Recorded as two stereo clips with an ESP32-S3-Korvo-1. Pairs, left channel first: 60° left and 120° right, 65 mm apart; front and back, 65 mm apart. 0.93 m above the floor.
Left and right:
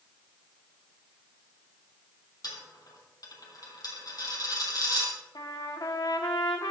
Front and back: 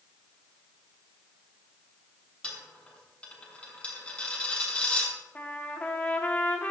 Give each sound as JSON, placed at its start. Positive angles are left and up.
{"t": 2.4, "sound": "a dropped coin", "azimuth_deg": 70, "distance_m": 2.5}
{"t": 5.3, "sound": "a trumpet", "azimuth_deg": 65, "distance_m": 1.4}